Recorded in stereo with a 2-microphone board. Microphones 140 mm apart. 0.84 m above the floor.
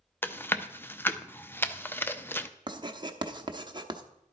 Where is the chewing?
15° left (ahead or behind), 0.5 m.